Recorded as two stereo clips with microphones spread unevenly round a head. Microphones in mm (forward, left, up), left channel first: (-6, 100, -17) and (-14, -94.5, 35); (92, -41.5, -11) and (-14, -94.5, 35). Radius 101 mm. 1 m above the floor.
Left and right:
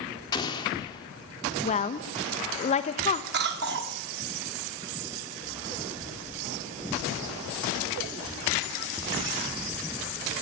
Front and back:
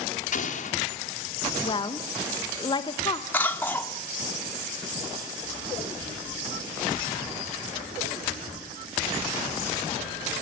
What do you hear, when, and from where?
0.3 s an explosion: 20° left, 2 m
1.6 s a woman speaking: 50° left, 1.0 m
3.3 s a cough: 50° right, 1.9 m